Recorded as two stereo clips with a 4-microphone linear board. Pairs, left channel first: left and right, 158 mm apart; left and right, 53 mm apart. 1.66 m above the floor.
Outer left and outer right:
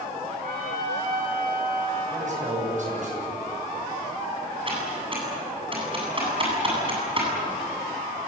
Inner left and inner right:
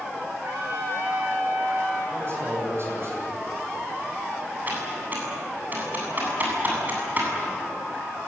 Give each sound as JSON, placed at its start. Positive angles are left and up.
{"t": 0.4, "sound": "a trumpet", "side_deg": -60, "distance_m": 9.5}
{"t": 2.1, "sound": "a man speaking", "side_deg": -50, "distance_m": 9.5}
{"t": 4.7, "sound": "typing on a keyboard", "side_deg": -35, "distance_m": 8.0}